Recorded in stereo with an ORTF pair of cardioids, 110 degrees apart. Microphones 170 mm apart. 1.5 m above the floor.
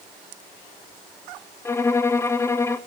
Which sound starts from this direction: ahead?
A violin, at 1.6 s.